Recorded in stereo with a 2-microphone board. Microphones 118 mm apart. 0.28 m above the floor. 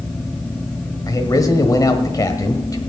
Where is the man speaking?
30° left (ahead or behind), 1.3 m.